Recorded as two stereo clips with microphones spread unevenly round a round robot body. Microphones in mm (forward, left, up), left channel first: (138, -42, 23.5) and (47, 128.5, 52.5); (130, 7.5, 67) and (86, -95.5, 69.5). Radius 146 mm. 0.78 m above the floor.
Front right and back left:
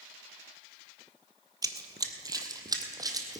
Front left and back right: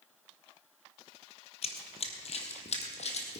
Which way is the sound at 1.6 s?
55° left.